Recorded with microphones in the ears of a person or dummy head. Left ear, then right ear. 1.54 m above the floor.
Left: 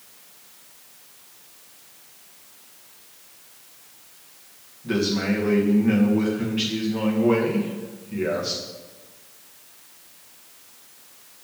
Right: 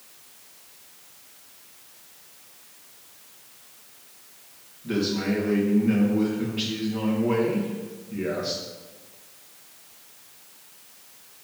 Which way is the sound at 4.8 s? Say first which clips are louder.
Left 2 dB; 20° left (ahead or behind).